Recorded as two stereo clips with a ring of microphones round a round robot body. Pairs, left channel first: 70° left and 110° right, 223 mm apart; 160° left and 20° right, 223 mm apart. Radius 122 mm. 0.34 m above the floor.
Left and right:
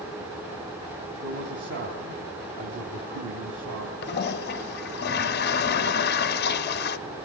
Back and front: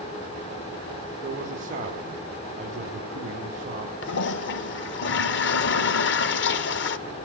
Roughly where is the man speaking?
Right.